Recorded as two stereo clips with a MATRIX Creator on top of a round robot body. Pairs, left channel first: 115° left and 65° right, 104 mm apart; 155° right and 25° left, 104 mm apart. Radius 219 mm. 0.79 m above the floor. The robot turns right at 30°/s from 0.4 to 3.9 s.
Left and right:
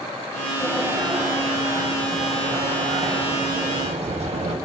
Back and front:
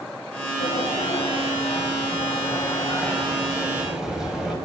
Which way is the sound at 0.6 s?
160° right.